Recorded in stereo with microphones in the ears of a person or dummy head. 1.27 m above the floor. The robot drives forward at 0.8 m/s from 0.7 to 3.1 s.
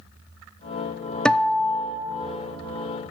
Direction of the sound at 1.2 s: 5° left (ahead or behind).